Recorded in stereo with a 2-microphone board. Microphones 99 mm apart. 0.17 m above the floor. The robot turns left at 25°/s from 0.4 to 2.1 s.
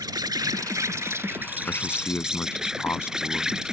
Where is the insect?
130° right; by 3.7 s 170° right.